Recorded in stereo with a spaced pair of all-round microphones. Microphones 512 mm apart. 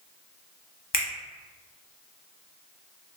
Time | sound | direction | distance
0.9 | a finger snap | 55° left (ahead or behind) | 0.8 m